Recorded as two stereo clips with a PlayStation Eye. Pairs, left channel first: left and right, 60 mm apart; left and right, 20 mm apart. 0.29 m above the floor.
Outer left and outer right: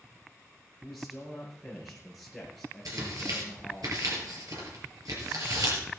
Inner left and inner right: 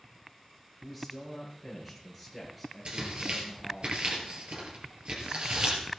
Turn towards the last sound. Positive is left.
turn(degrees=-70)  # may be behind; listen again after turning